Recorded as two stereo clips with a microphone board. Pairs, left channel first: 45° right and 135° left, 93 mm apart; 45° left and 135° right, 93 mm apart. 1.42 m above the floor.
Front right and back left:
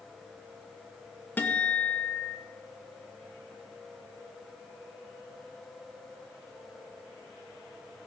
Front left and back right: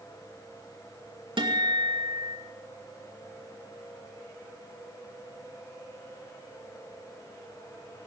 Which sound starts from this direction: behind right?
A guitar, at 1.4 s.